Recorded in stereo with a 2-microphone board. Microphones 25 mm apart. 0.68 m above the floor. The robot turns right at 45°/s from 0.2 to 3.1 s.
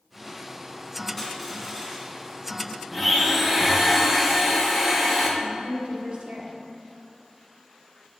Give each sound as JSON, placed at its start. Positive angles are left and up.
{"t": 1.2, "sound": "crushing", "azimuth_deg": 180, "distance_m": 1.5}
{"t": 2.9, "sound": "a blender", "side_deg": -10, "distance_m": 0.9}
{"t": 5.4, "sound": "a woman speaking", "side_deg": -55, "distance_m": 1.1}